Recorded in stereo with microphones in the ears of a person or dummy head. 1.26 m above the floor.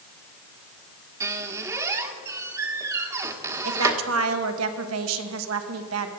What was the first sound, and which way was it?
A squeak, 15° right (ahead or behind).